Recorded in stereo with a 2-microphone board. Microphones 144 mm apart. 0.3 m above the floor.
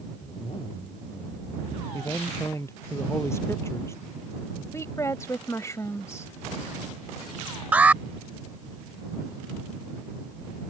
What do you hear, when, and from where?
0.2 s a zipper: 45° left (ahead or behind)
1.9 s a man speaking: 20° left (ahead or behind)
4.7 s a woman speaking: 20° left (ahead or behind)
7.7 s an alarm: 10° right (ahead or behind)